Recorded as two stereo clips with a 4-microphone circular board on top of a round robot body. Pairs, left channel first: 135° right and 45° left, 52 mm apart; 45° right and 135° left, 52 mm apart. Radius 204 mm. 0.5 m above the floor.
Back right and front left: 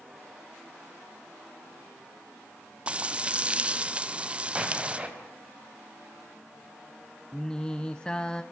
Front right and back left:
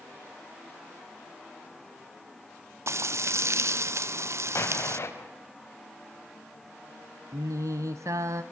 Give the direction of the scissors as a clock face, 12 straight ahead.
I don't hear scissors.